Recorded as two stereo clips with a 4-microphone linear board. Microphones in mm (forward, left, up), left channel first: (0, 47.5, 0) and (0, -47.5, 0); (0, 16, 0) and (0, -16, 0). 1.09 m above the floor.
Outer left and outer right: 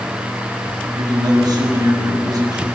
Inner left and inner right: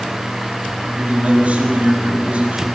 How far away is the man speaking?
About 7 m.